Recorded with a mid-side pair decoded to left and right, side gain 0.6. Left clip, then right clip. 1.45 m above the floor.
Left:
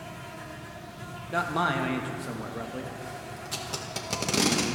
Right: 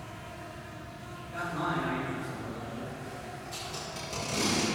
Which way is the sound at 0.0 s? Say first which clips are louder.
Left 3 dB; 45° left.